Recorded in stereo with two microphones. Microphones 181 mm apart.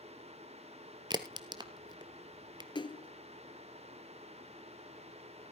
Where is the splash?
25° left (ahead or behind), 0.6 m.